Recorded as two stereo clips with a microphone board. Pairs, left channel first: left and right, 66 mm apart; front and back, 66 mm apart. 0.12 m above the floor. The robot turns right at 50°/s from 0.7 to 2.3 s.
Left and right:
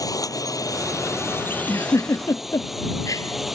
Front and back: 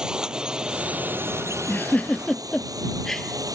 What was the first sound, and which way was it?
A drone, 105° left.